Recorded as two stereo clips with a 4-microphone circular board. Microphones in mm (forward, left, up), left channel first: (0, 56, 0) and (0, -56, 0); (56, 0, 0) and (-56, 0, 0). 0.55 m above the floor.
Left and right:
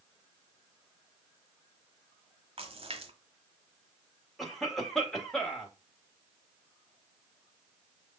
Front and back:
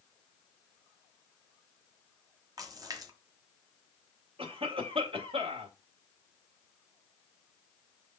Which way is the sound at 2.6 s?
125° right.